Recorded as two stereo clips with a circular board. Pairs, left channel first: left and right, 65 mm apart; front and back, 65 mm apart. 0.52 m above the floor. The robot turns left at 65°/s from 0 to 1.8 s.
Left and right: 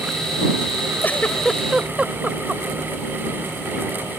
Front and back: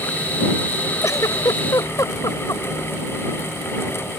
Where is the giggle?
35° left; by 2.6 s 15° right.